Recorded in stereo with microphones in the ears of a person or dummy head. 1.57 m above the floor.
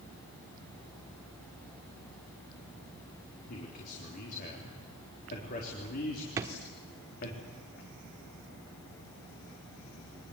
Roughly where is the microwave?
No microwave in this recording.